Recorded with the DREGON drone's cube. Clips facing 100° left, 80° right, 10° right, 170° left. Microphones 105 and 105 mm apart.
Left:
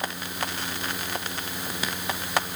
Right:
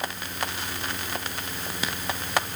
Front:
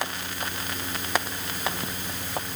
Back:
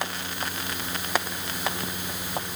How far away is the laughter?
I don't hear laughter.